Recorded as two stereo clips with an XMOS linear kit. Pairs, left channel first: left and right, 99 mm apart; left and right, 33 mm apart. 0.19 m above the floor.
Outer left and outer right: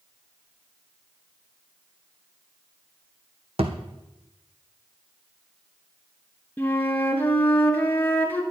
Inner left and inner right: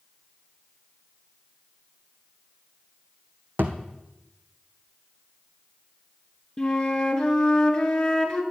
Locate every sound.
3.6 s a thud: 75° right (ahead or behind), 1.6 m
6.6 s a flute: 15° left (ahead or behind), 1.7 m